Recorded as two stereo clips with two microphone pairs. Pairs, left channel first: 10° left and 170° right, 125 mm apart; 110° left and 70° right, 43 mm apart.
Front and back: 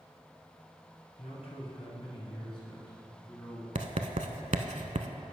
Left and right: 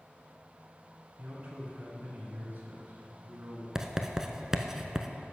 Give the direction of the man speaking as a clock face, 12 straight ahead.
12 o'clock.